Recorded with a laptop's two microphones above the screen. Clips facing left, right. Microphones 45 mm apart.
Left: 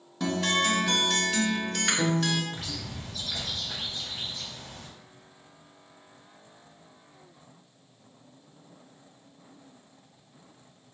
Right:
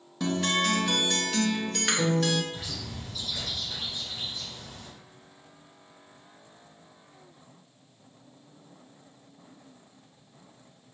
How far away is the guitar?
About 0.6 m.